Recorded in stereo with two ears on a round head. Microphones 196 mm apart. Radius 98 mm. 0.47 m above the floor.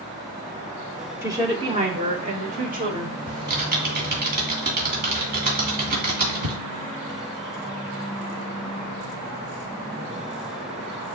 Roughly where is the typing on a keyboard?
Right.